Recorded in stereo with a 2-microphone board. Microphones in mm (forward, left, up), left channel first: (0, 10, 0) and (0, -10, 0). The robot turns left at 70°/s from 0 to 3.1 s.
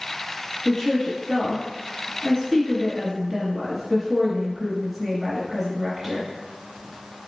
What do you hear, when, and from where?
0.7 s a woman speaking: 130° left, 1.6 m; by 6.3 s 40° right, 1.6 m